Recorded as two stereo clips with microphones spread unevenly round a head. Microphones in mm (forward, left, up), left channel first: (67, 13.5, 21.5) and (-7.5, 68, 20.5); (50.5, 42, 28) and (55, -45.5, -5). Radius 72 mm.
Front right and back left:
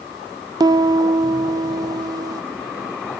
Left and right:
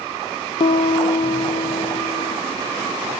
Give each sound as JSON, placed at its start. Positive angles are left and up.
{"t": 0.6, "sound": "a piano", "azimuth_deg": 95, "distance_m": 0.5}